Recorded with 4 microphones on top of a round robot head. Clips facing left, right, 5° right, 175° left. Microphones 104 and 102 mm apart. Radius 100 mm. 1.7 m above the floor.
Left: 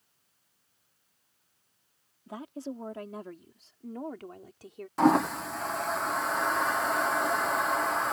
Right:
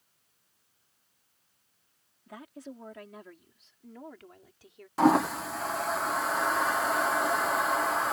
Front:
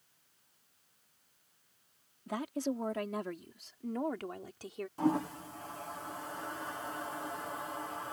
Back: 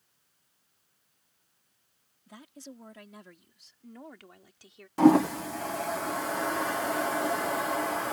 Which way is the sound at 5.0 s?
Straight behind.